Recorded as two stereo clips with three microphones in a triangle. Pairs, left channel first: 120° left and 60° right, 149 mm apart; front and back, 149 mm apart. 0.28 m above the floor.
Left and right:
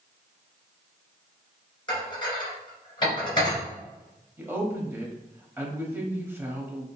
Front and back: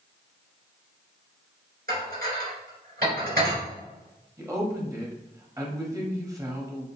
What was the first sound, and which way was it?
Dishes clattering, straight behind.